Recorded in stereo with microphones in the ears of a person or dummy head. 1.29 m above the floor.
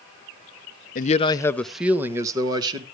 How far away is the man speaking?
About 0.7 m.